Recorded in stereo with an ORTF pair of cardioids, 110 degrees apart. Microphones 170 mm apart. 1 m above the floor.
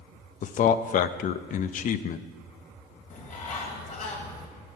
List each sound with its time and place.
0.4 s a man speaking: 55° left, 0.7 m
3.1 s a bird: 45° left, 2.5 m